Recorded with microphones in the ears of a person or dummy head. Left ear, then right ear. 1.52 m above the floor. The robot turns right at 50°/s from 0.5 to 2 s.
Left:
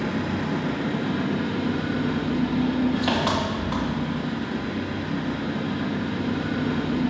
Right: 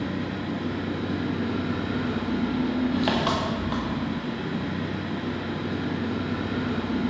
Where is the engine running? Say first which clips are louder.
Left 4 dB; 120° left, 0.8 m; by 7.1 s 165° right, 0.8 m.